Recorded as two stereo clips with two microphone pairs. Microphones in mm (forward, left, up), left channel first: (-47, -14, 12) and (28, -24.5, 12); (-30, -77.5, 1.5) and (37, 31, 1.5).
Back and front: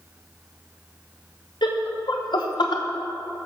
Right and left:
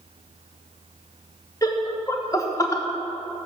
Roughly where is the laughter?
Behind.